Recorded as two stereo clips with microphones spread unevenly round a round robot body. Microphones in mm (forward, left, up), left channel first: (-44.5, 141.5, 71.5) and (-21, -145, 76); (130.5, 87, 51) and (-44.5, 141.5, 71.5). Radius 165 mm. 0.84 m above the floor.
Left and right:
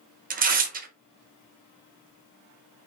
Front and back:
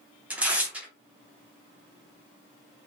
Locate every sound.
0.3 s tearing paper: 110° right, 0.9 m